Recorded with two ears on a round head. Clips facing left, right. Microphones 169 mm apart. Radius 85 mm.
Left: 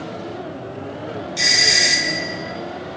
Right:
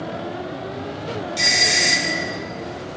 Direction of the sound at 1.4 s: 5° left (ahead or behind).